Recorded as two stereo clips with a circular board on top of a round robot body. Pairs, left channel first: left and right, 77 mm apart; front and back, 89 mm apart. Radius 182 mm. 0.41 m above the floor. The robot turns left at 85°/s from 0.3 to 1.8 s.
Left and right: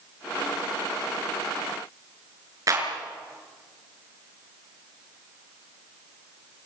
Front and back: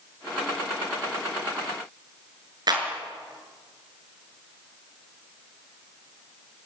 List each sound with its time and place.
2.7 s a clap: 140° right, 6 m